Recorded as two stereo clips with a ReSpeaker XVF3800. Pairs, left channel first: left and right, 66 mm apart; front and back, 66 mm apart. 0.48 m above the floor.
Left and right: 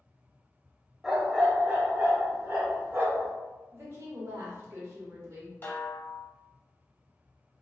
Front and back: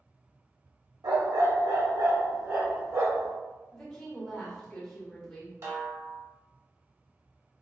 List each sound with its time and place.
1.0 s a dog barking: straight behind, 0.6 m; by 3.3 s 145° right, 1.7 m
3.7 s a woman speaking: 80° right, 1.1 m
5.6 s a snare drum: 145° left, 0.8 m